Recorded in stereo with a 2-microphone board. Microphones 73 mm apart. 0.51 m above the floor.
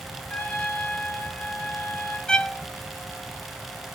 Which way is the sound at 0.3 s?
15° left (ahead or behind).